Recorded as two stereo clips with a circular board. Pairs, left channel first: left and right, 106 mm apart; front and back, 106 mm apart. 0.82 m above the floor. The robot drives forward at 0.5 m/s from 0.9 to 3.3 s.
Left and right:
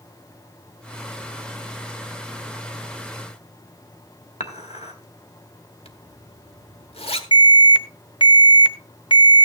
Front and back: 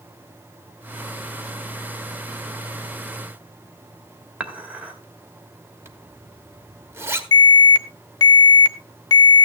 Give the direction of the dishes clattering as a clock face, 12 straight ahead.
9 o'clock.